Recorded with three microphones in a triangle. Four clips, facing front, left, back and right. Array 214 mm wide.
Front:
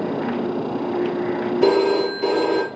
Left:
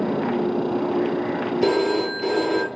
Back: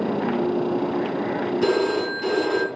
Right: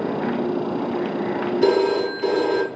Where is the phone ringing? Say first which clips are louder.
Right 3 dB, front 6 dB; 10° right, 1.0 m.